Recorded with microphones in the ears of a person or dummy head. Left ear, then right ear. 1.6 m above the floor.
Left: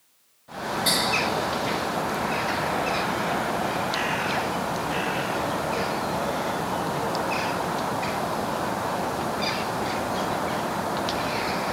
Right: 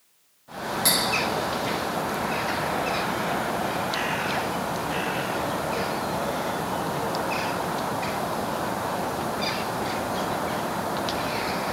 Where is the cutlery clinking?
65° right (ahead or behind), 1.5 m.